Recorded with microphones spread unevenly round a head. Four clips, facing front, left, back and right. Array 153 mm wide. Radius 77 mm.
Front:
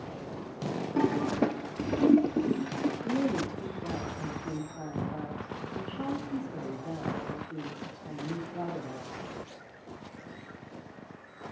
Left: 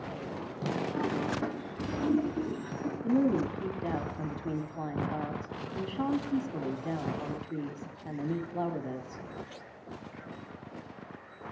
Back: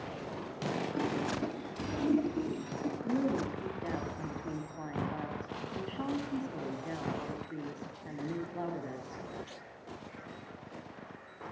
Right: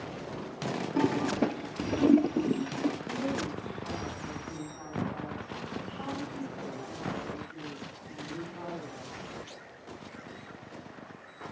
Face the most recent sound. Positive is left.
turn(degrees=70)